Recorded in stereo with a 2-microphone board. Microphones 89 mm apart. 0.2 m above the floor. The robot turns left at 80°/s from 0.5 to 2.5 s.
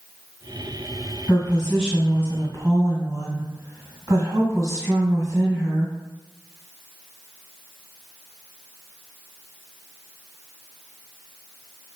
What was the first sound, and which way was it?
A woman speaking, 30° left.